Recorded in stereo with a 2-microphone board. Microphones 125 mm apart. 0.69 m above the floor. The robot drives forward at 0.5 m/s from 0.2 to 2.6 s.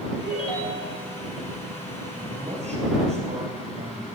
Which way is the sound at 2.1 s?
60° right (ahead or behind).